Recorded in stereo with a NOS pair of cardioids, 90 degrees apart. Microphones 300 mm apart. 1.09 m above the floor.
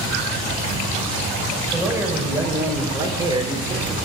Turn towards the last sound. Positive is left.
turn(degrees=-20)